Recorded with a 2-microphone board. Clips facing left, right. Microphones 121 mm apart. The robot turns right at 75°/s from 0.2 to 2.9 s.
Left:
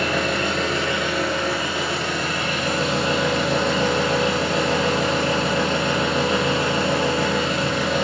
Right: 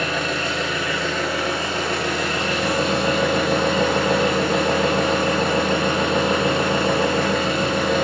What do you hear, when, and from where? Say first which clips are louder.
0.0 s an engine running: left 2 dB; 100° left, 3.5 m; by 8.0 s 55° right, 3.5 m